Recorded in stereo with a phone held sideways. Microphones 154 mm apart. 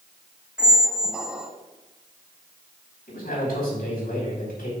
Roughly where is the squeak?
Centre.